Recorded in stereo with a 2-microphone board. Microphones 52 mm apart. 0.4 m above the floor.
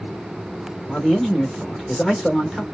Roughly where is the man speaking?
Centre.